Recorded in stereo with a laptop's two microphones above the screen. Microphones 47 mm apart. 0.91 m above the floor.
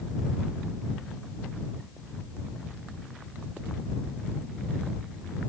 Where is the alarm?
I don't hear an alarm.